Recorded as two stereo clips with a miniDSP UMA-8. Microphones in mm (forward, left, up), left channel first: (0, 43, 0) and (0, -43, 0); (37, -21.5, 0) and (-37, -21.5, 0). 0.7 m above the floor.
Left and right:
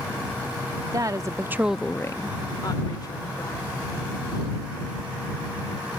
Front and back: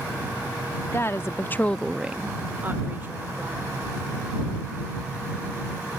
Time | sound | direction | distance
0.9 | a woman speaking | 50° right | ?